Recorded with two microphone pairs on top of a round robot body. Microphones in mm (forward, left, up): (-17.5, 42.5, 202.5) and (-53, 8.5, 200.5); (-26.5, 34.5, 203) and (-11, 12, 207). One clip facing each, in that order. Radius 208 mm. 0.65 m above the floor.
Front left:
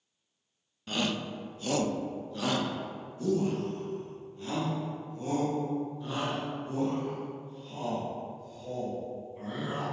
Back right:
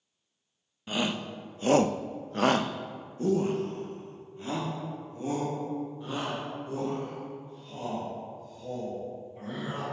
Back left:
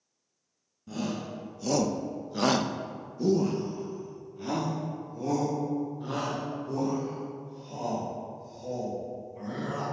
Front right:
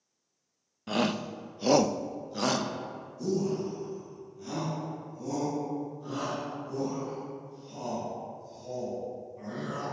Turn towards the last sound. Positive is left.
turn(degrees=155)